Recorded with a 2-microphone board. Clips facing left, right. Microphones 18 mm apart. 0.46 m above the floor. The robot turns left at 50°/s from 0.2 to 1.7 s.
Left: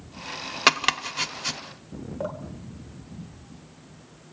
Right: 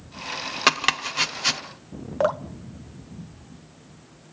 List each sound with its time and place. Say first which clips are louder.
0.7 s chopping: even; 5° left (ahead or behind), 1.0 m; by 1.6 s 35° right (ahead or behind), 1.0 m
2.2 s dripping: right 11 dB; 55° right (ahead or behind), 0.6 m